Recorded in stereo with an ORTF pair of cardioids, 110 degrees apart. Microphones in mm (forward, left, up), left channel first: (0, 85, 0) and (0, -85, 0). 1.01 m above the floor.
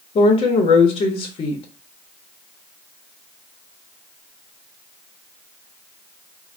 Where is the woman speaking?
35° left, 0.7 m.